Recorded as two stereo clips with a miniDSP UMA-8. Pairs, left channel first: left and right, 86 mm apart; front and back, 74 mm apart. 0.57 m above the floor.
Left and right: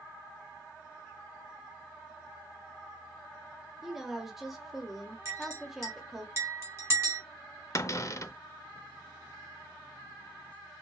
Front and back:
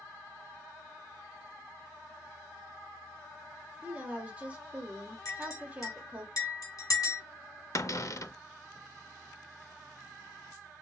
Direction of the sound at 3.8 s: 170° right.